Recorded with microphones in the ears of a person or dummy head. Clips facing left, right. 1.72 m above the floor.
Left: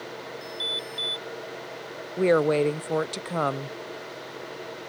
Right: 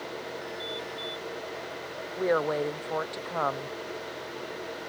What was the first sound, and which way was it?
An alarm, 70° left (ahead or behind).